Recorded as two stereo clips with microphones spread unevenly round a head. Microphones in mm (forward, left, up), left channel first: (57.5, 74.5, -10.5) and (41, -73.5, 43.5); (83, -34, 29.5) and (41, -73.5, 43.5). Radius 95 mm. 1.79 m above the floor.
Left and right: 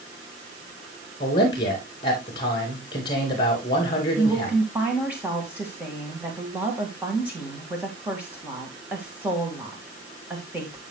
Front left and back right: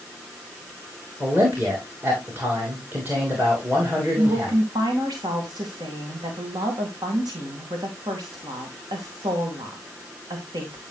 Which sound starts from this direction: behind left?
A man speaking, at 1.2 s.